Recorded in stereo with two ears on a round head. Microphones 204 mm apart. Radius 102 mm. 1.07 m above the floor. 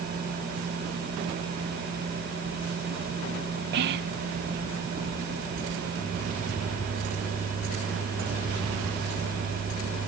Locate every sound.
3.7 s whispering: 45° right (ahead or behind), 0.7 m